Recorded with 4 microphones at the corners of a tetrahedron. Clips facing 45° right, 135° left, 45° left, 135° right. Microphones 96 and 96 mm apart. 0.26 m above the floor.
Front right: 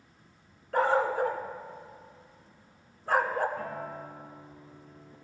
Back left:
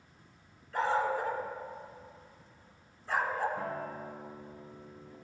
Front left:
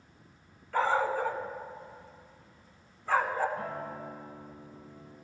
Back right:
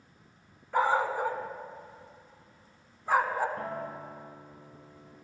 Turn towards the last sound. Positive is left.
turn(degrees=-150)